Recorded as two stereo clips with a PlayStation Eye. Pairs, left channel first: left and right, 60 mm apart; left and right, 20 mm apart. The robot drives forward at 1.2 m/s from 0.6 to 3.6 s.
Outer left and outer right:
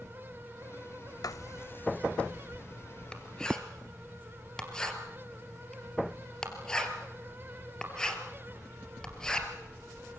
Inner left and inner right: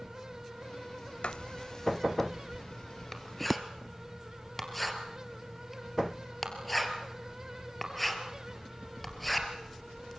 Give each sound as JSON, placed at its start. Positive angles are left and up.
{"t": 1.2, "sound": "writing", "side_deg": 75, "distance_m": 0.5}